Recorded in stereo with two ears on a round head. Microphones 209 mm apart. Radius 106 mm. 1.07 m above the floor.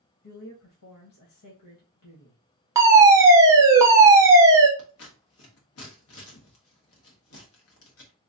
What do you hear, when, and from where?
0.2 s a woman speaking: 80° left, 1.0 m
2.8 s a fire alarm: 15° right (ahead or behind), 1.1 m
4.8 s scissors: 65° left (ahead or behind), 1.2 m